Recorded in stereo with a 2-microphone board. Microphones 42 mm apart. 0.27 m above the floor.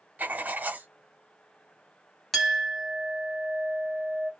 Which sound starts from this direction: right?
Writing, at 0.2 s.